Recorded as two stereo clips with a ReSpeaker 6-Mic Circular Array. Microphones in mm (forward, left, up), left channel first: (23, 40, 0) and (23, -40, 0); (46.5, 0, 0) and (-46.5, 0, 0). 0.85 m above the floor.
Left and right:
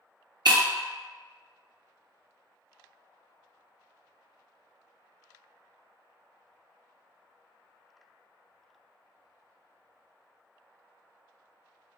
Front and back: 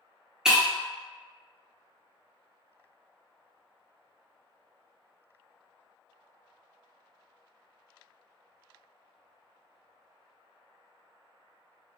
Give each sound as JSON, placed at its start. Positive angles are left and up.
{"t": 0.5, "sound": "breaking glass", "azimuth_deg": -95, "distance_m": 0.6}